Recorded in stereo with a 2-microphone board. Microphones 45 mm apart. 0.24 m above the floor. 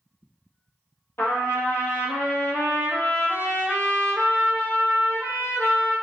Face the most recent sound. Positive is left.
turn(degrees=65)  # may be behind; listen again after turning